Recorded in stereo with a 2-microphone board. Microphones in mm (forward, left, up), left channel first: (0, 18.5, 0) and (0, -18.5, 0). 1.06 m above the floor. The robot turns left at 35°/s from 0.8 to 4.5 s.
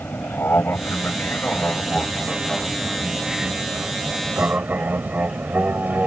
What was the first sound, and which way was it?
An aircraft, 70° left (ahead or behind).